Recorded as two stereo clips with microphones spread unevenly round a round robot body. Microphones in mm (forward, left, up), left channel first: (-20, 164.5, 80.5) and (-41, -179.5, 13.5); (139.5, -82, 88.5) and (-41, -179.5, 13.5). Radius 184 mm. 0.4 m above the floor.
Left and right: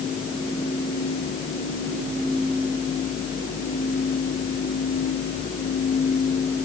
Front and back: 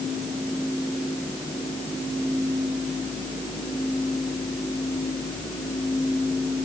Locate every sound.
Only background noise.